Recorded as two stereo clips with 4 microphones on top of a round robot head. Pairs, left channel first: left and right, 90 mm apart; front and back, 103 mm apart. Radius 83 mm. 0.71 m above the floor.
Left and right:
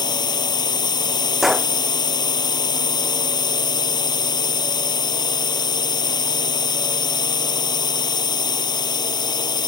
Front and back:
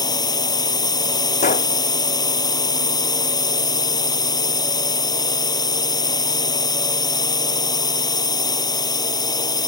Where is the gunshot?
5° right.